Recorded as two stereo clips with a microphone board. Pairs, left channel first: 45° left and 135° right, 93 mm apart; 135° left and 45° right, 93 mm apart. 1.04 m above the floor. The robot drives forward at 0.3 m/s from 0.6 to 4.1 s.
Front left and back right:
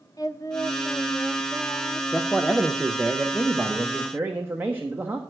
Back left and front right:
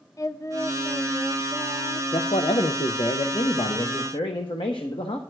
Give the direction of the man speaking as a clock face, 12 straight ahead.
8 o'clock.